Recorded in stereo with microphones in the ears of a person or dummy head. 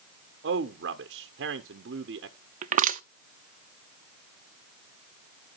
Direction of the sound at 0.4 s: 55° right (ahead or behind).